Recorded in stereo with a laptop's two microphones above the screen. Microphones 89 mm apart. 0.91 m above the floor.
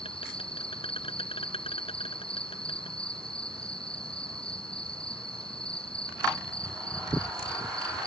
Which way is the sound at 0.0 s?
85° left.